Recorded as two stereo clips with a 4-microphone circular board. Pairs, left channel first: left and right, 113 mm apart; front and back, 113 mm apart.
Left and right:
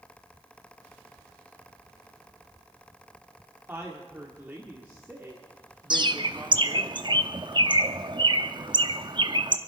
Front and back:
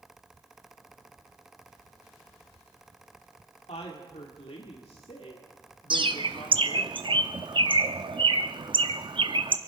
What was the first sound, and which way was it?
A woman speaking, 15° right.